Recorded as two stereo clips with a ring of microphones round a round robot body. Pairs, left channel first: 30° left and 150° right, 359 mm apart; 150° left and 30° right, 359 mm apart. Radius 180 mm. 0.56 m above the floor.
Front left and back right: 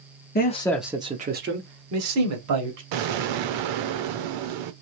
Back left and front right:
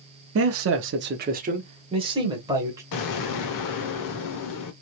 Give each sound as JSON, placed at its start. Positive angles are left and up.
{"t": 0.3, "sound": "a man speaking", "azimuth_deg": -15, "distance_m": 0.7}
{"t": 2.9, "sound": "an explosion", "azimuth_deg": -165, "distance_m": 0.6}